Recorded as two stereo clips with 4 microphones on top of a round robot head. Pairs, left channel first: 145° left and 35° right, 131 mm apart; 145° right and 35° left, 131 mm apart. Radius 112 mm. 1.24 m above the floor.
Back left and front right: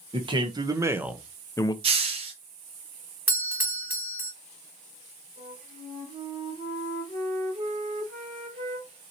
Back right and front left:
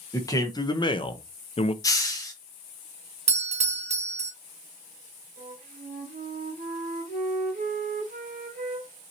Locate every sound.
0.1 s a man speaking: 80° right, 1.2 m; by 1.7 s 165° right, 0.7 m
1.8 s a hiss: 80° right, 0.6 m
3.3 s a doorbell: 40° left, 1.5 m
5.4 s a flute: 5° left, 1.7 m